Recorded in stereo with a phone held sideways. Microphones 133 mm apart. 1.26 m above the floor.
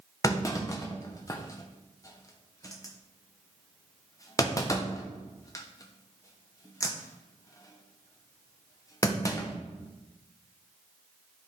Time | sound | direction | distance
0.2 | a clunk | 25° left (ahead or behind) | 1.0 m